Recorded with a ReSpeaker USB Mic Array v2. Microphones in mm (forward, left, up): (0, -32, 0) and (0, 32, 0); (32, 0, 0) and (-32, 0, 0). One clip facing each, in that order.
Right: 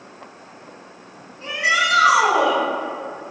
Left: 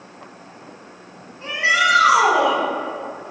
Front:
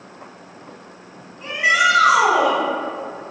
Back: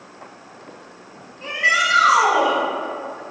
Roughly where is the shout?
Left.